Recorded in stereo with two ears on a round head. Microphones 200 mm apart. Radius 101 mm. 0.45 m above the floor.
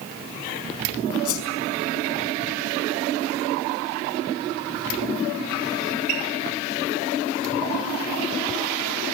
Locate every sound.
1.2 s a whoosh: 75° left (ahead or behind), 5 m